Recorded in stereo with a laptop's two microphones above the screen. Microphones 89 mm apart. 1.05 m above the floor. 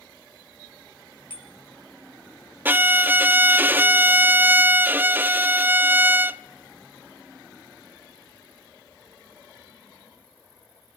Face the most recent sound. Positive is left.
turn(degrees=-25)  # may be behind; listen again after turning